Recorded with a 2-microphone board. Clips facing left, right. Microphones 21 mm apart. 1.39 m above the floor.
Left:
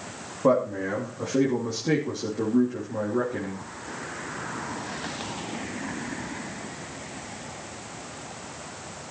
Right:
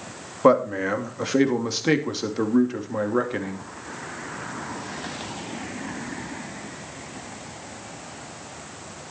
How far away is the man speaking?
About 2.5 m.